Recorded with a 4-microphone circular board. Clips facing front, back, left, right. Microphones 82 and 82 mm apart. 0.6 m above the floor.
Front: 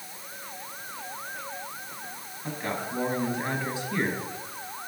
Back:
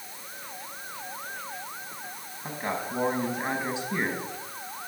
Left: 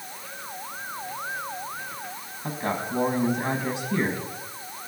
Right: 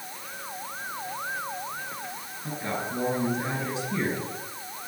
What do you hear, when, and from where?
2.4 s a man speaking: 110° left, 5 m